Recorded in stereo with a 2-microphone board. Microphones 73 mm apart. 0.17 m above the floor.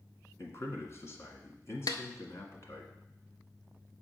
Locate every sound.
0.4 s a man speaking: 40° left (ahead or behind), 1.6 m
1.9 s a snare drum: 65° left (ahead or behind), 0.7 m